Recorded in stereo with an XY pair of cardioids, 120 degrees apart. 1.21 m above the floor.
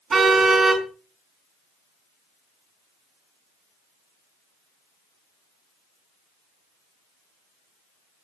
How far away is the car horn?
About 5 m.